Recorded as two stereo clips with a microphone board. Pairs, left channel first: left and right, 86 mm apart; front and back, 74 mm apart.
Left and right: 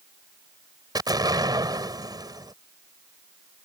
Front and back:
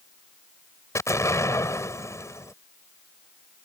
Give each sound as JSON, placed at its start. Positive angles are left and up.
{"t": 0.9, "sound": "an explosion", "azimuth_deg": -50}